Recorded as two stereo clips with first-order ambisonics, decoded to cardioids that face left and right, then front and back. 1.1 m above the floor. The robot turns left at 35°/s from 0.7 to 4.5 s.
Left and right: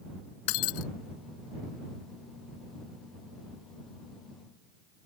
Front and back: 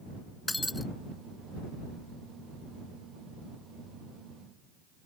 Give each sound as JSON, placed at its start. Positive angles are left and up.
{"t": 0.5, "sound": "breaking glass", "azimuth_deg": 85}